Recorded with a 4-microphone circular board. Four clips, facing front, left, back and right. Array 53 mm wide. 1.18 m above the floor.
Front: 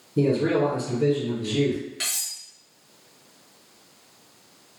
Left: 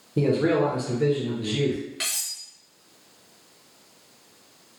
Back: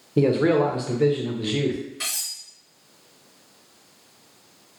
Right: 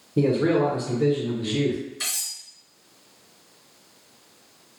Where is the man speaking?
175° left, 0.7 m.